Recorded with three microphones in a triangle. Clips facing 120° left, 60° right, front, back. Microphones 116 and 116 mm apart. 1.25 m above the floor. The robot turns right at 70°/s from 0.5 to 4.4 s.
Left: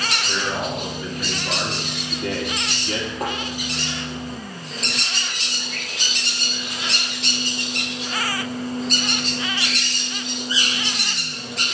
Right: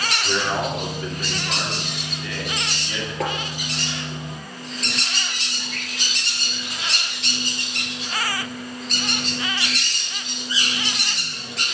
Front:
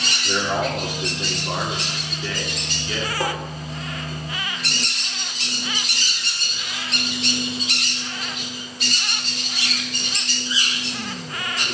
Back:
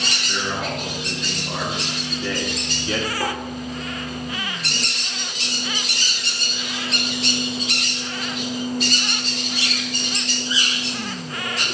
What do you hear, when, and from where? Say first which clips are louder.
0.2 s a man speaking: right 4 dB, front 5 dB; straight ahead, 2.5 m; by 3.1 s straight behind, 2.5 m
3.2 s tapping: right 3 dB, front 3 dB; 70° right, 4 m; by 3.3 s 60° right, 4 m